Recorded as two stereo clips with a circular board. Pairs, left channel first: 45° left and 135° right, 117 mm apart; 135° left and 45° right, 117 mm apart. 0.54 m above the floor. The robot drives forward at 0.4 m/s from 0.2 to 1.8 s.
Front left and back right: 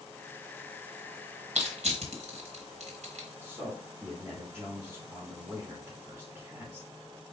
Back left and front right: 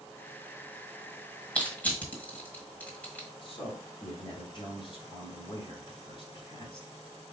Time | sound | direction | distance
1.6 | crushing | 145° right | 1.5 m
3.4 | a man speaking | 160° left | 1.8 m